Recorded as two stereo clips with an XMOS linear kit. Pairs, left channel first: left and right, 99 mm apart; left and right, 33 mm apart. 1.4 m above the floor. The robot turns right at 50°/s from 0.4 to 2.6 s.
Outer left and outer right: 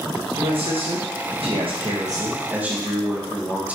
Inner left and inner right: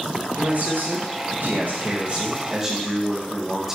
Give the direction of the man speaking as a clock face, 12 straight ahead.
4 o'clock.